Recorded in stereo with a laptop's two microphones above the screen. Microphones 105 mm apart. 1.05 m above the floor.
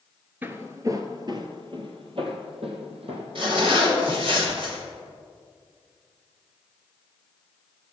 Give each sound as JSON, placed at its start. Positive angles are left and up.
{"t": 0.4, "sound": "footsteps", "side_deg": -15, "distance_m": 1.0}
{"t": 3.4, "sound": "a zipper", "side_deg": -55, "distance_m": 2.5}